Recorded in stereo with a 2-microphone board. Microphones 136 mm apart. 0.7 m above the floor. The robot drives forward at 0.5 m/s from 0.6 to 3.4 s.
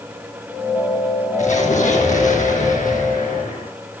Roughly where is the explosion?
Left.